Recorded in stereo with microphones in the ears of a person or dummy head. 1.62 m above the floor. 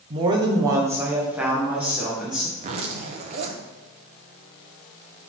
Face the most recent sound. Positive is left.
turn(degrees=-40)  # may be behind; listen again after turning